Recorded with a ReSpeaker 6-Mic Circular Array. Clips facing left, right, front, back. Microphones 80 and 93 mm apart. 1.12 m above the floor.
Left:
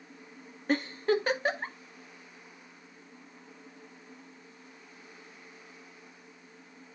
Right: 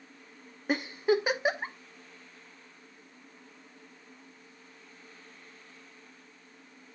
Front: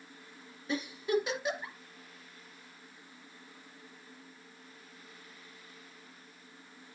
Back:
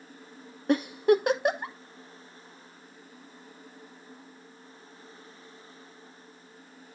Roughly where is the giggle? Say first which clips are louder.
Right 1 dB, back 9 dB; behind.